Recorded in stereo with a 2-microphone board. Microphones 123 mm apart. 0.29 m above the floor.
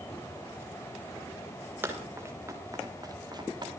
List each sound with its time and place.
1.8 s running footsteps: 20° right (ahead or behind), 5.5 m; by 3.7 s 40° right (ahead or behind), 5 m